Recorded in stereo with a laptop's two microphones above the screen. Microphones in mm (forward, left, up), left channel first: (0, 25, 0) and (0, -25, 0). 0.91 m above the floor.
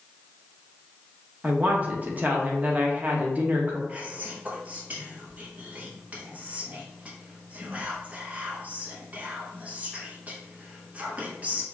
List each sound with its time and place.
1.4 s a woman speaking: 35° right (ahead or behind), 0.7 m
3.9 s whispering: 30° right (ahead or behind), 0.9 m